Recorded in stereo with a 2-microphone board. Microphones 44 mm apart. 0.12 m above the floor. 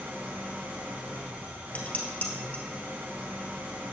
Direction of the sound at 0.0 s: 60° right (ahead or behind).